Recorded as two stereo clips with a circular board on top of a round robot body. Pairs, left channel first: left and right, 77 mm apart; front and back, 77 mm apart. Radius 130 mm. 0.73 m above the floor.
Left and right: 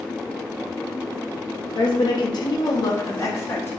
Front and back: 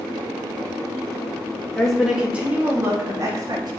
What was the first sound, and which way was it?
A woman speaking, 80° left.